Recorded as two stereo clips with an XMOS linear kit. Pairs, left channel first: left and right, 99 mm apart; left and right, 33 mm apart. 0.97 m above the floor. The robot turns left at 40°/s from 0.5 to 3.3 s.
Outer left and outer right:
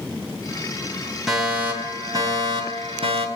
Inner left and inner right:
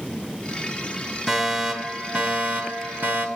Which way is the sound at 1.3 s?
5° right.